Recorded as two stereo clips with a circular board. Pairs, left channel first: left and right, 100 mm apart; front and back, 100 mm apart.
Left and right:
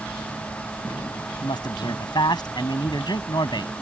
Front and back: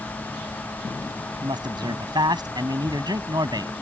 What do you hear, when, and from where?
1.4 s a man speaking: 135° left